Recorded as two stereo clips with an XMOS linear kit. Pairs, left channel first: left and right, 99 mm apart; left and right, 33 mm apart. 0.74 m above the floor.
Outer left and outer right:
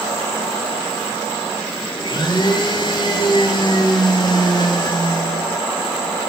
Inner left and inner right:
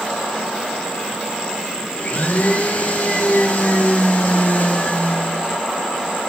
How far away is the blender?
About 0.9 m.